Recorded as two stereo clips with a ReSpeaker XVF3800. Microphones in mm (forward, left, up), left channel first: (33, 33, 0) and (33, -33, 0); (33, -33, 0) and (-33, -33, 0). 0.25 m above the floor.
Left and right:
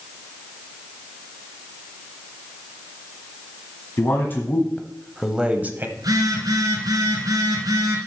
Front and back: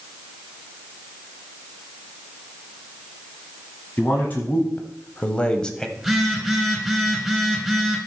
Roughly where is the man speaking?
Ahead left.